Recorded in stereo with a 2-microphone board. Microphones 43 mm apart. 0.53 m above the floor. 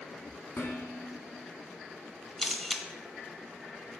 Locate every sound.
0.6 s dishes clattering: 40° left (ahead or behind), 3 m
2.4 s a camera shutter: 5° left (ahead or behind), 0.7 m